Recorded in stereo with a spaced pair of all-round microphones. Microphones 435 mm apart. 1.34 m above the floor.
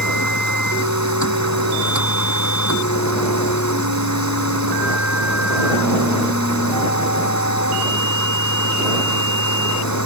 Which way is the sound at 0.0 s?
35° left (ahead or behind).